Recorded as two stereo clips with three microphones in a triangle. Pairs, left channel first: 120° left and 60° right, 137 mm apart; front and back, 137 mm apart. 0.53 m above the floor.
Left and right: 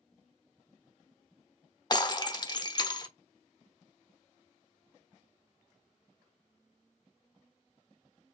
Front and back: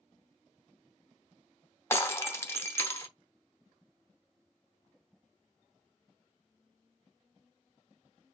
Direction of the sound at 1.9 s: 65° left.